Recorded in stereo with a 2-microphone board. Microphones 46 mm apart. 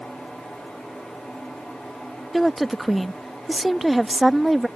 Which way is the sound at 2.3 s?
Centre (ahead or behind).